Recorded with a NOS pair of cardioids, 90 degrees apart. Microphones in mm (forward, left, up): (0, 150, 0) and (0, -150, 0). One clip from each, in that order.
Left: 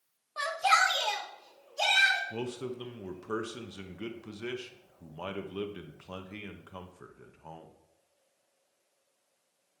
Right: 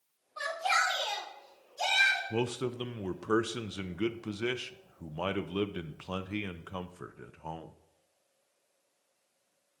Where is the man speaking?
30° right, 0.7 m.